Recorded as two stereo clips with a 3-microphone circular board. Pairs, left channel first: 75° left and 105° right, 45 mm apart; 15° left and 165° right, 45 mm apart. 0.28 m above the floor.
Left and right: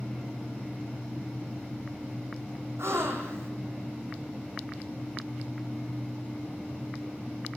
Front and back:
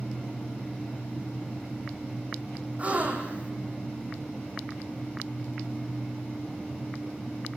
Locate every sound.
2.8 s a gasp: 110° right, 3.5 m